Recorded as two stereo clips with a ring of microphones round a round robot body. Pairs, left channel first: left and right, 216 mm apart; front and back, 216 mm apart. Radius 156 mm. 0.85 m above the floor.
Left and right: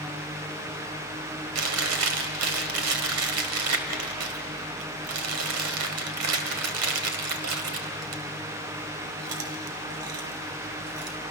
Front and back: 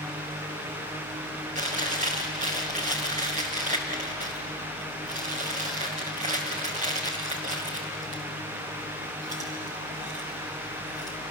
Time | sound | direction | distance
1.6 | chewing | 110° right | 1.2 m